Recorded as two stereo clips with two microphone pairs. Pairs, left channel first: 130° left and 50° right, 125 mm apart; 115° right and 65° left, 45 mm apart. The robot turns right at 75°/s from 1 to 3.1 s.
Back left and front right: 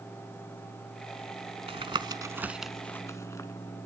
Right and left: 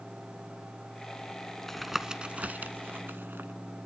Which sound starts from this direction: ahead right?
Tapping, at 1.7 s.